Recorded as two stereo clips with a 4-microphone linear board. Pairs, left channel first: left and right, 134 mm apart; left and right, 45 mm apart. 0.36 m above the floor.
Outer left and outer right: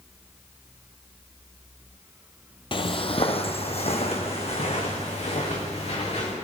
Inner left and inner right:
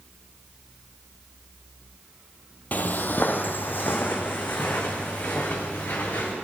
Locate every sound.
2.7 s footsteps: 40° left (ahead or behind), 0.7 m; by 6.3 s 55° left (ahead or behind), 3.5 m